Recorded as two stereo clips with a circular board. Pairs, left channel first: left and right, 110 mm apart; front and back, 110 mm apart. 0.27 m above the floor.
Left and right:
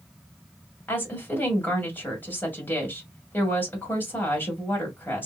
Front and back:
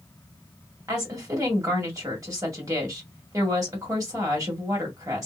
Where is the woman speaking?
150° left, 1.8 m.